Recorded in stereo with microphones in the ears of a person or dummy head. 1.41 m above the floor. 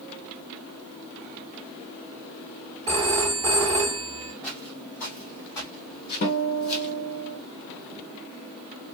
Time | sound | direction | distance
2.9 | a phone ringing | 35° right (ahead or behind) | 2.5 m
4.4 | footsteps | 10° left (ahead or behind) | 2 m
6.2 | a guitar | 40° left (ahead or behind) | 2 m